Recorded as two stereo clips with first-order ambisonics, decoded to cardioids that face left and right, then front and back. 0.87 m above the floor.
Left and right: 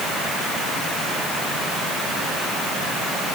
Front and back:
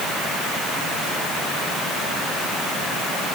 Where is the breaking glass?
No breaking glass in this recording.